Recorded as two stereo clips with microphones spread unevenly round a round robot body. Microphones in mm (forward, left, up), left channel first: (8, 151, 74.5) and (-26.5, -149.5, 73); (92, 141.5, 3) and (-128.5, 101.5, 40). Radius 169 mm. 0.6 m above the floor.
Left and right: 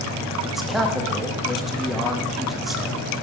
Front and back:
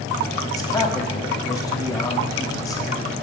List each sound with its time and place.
0.4 s a man speaking: 10° right, 1.0 m